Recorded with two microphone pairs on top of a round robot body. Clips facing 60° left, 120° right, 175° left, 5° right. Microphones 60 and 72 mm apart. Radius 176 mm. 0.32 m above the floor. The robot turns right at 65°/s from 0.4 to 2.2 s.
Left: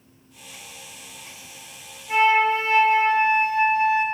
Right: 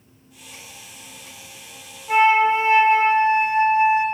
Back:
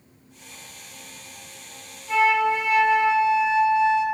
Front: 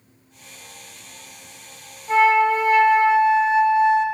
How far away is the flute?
About 0.6 m.